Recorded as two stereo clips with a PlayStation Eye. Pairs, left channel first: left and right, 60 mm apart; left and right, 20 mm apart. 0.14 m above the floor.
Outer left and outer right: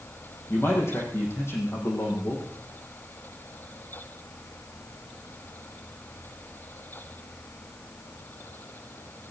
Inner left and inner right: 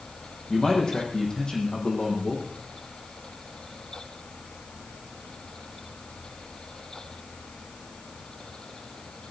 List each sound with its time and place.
0.5 s a man speaking: 45° left (ahead or behind), 7 m